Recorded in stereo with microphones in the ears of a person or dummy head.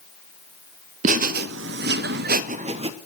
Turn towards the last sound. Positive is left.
turn(degrees=-30)  # may be behind; listen again after turning